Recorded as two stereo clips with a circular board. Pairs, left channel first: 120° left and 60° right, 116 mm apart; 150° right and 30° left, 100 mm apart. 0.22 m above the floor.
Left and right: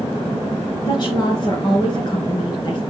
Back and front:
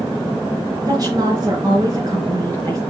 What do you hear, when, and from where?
0.9 s a woman speaking: 70° left, 3.5 m